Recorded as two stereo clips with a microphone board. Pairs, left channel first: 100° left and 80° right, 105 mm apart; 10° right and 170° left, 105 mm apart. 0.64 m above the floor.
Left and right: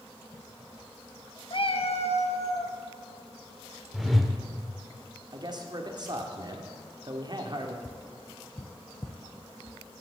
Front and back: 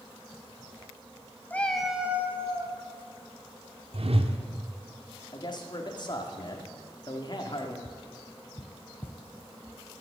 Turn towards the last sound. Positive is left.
turn(degrees=35)